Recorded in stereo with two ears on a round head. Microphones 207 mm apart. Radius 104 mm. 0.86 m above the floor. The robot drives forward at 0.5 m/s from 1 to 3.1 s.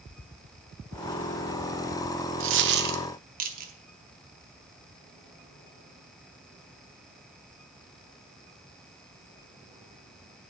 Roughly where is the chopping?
I don't hear chopping.